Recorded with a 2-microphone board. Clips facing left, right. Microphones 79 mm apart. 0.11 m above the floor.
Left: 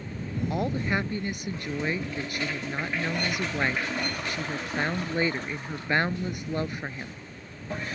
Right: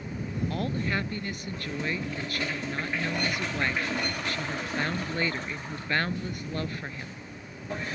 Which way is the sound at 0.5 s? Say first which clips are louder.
Left 3 dB; 20° left (ahead or behind).